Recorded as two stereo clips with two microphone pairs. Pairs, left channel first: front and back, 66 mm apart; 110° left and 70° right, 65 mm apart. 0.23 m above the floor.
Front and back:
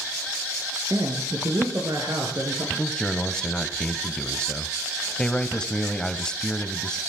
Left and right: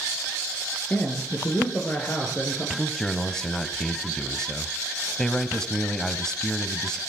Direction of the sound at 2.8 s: 45° left.